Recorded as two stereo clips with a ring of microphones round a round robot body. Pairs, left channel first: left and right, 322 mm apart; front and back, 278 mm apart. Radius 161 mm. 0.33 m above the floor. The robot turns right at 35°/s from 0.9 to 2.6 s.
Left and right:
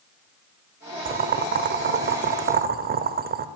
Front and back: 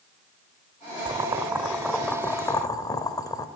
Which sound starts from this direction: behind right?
Boiling, at 1.1 s.